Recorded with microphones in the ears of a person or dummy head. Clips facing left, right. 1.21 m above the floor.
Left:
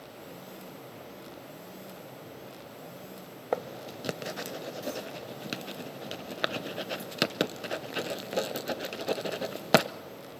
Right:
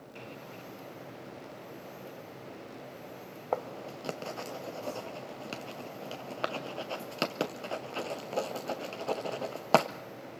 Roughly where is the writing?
Left.